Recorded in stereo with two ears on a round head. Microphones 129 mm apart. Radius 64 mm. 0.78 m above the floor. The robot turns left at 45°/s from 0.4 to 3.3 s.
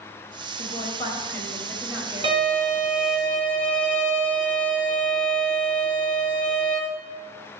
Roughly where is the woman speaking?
Ahead left.